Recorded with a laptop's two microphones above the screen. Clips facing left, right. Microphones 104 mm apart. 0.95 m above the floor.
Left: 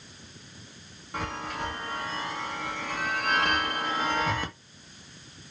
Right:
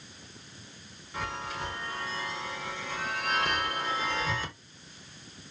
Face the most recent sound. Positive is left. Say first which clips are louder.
# left 2 dB
turn(degrees=60)  # may be behind; listen again after turning